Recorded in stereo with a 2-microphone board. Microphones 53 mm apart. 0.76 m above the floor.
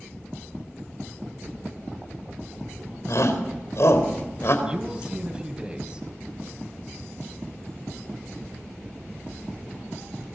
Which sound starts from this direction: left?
A shout, at 3.1 s.